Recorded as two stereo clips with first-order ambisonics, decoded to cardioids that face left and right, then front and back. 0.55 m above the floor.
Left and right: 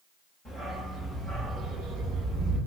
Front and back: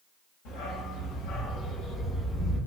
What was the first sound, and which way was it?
A dog barking, 5° left.